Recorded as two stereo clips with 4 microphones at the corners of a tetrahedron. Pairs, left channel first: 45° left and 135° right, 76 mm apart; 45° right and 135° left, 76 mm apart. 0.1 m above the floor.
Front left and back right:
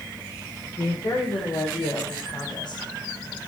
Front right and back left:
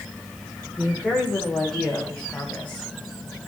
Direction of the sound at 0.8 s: 45° left.